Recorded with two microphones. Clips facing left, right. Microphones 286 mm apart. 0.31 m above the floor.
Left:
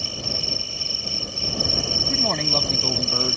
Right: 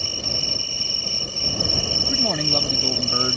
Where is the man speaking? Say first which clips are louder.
Right 2 dB; 5° right (ahead or behind).